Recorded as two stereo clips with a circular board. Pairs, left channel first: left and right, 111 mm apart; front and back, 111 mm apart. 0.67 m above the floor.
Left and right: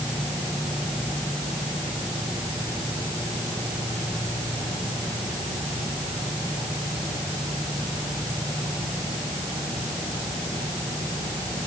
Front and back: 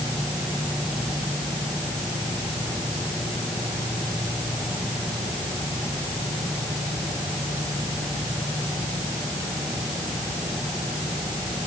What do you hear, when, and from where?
Only background noise.